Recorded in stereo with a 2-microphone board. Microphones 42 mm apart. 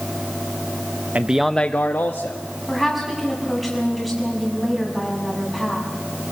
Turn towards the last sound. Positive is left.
turn(degrees=0)  # may be behind; listen again after turning